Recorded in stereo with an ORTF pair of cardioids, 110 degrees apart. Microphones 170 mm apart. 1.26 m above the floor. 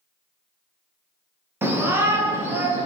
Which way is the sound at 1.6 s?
15° right.